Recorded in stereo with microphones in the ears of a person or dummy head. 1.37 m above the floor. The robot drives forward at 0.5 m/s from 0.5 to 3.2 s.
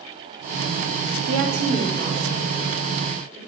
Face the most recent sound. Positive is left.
turn(degrees=-40)  # may be behind; listen again after turning